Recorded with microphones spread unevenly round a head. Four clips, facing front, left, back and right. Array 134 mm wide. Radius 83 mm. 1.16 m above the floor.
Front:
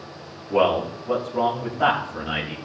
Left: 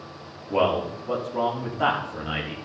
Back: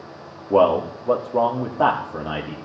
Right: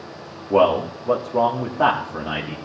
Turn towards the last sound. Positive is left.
turn(degrees=-155)